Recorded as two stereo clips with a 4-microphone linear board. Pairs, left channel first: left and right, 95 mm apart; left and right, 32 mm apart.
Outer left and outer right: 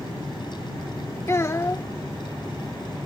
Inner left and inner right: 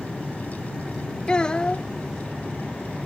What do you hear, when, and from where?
1.3 s a child speaking: 30° left (ahead or behind)